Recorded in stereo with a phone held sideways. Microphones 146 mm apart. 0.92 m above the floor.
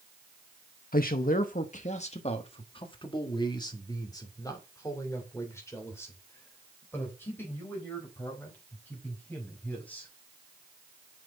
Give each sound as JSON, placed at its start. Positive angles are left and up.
{"t": 0.9, "sound": "a man speaking", "side_deg": 70, "distance_m": 0.8}